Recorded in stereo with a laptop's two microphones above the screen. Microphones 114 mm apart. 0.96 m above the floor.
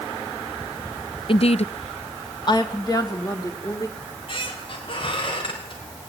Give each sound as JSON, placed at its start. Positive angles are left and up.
{"t": 1.3, "sound": "a woman speaking", "side_deg": 50, "distance_m": 0.6}
{"t": 4.0, "sound": "a squeak", "side_deg": 50, "distance_m": 4.0}